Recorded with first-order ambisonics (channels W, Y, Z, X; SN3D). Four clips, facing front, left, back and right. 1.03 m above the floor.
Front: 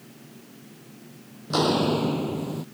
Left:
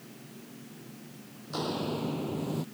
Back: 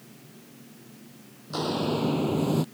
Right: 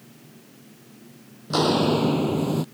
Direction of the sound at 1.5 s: 55° right.